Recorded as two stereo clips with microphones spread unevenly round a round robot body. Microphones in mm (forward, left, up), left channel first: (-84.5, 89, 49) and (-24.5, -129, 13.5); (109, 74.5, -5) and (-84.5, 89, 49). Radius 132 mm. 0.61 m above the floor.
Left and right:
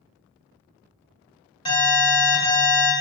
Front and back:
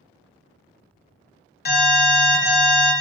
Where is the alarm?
30° left, 1.4 m.